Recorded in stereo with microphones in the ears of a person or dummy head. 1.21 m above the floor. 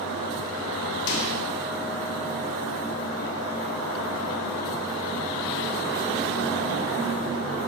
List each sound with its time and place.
1.1 s a microwave: 85° left, 1.7 m